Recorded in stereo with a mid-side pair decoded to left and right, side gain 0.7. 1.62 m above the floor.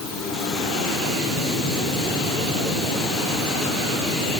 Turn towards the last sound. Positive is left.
No sound to turn to.